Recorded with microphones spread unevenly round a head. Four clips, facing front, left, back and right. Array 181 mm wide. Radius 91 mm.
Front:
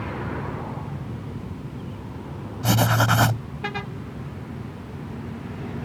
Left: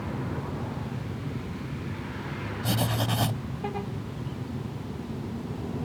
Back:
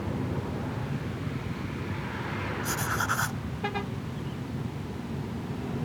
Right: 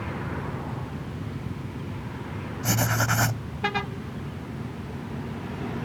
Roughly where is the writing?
Ahead.